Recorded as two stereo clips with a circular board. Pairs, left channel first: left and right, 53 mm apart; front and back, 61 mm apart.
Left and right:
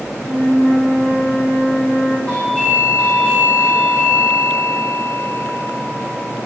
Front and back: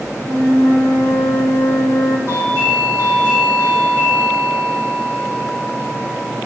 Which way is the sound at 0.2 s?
25° left.